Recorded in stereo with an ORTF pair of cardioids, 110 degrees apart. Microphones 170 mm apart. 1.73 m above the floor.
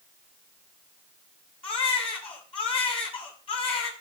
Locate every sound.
1.6 s a baby crying: 30° left, 6.5 m